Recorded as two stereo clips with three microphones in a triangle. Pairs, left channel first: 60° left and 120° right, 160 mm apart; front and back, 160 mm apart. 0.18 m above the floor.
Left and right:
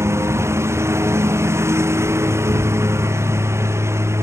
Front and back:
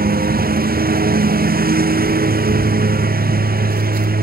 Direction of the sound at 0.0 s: 165° left.